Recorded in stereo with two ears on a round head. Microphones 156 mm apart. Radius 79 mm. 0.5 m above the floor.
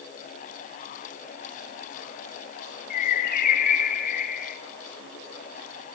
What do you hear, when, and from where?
2.9 s a bird: 55° left (ahead or behind), 1.6 m